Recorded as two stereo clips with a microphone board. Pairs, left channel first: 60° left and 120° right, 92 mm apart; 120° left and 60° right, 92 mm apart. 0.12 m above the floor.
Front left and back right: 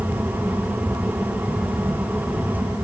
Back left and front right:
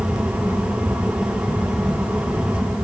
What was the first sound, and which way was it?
Only background noise.